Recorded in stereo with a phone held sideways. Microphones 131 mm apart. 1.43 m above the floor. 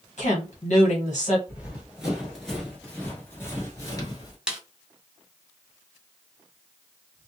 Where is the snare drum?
5° right (ahead or behind), 0.6 m.